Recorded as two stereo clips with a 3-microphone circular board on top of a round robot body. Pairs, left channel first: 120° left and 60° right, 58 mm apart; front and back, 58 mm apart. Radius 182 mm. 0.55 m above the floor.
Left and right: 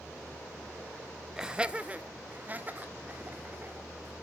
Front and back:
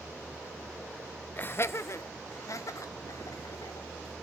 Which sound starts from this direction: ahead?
Laughter, at 1.4 s.